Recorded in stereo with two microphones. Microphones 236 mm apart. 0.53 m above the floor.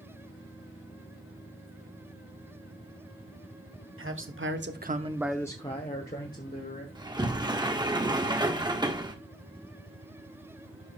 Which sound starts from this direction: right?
A man speaking, at 4.0 s.